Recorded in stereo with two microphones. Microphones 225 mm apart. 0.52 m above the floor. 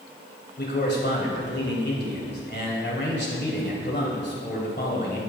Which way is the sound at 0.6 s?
50° left (ahead or behind).